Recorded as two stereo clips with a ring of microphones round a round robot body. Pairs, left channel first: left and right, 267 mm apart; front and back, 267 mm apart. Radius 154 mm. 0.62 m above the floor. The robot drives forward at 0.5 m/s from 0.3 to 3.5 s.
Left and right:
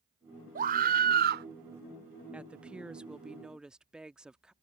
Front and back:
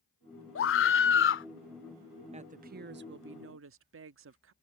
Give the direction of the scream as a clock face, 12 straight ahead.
1 o'clock.